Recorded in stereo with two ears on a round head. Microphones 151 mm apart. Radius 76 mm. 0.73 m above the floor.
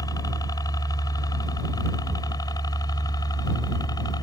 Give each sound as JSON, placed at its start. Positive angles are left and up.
{"t": 0.0, "sound": "a helicopter", "side_deg": 20}